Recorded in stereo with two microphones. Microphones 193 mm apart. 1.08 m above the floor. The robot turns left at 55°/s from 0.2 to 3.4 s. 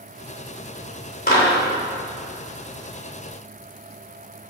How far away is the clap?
About 3.5 m.